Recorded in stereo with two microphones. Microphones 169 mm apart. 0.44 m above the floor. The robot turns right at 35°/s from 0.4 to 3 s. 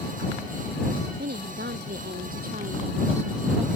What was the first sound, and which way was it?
A woman speaking, 105° right.